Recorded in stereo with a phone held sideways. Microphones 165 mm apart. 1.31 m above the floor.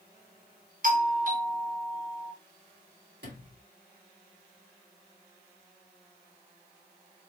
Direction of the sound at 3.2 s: 80° right.